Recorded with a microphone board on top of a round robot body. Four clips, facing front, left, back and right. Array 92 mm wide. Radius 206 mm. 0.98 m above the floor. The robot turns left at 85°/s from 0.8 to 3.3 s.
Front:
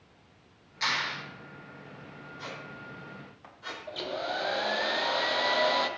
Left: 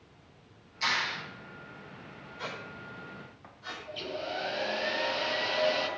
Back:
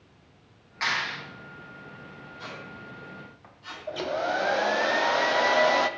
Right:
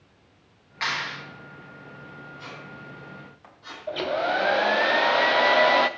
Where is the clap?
125° right, 3.5 m; by 1.2 s 155° right, 3.5 m.